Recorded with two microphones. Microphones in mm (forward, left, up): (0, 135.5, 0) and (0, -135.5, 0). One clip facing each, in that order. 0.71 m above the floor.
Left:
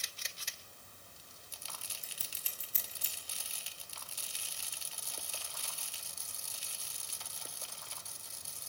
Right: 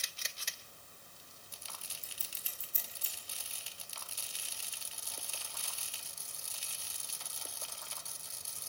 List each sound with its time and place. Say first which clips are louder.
2.0 s scissors: left 1 dB; 75° left (ahead or behind), 3.5 m